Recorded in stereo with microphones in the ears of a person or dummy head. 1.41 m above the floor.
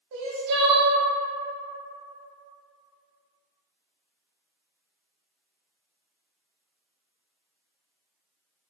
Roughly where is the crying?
Right.